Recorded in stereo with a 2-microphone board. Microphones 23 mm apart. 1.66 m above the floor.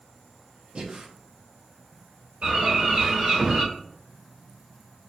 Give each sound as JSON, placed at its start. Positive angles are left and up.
{"t": 0.8, "sound": "breathing", "side_deg": -50, "distance_m": 0.9}
{"t": 2.4, "sound": "a bird", "side_deg": -55, "distance_m": 2.5}